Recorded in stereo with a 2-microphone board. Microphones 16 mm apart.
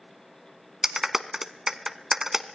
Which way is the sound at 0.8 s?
25° right (ahead or behind).